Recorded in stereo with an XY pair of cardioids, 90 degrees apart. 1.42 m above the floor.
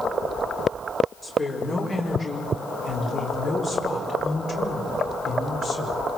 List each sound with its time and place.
1.2 s a woman speaking: 40° left, 5 m; by 6.0 s 65° left, 5 m